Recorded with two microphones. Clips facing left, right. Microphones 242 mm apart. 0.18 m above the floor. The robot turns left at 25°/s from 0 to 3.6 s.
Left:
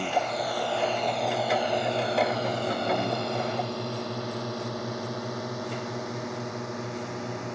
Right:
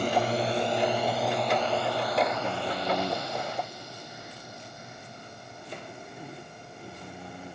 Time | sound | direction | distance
0.0 | a drone | 45° right (ahead or behind) | ?